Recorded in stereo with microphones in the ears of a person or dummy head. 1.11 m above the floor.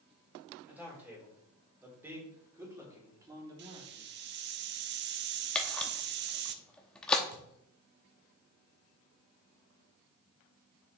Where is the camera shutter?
10° left (ahead or behind), 0.8 m.